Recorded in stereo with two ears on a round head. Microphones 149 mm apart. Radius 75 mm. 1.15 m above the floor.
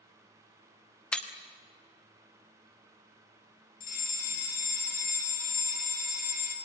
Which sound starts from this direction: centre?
Breaking glass, at 1.1 s.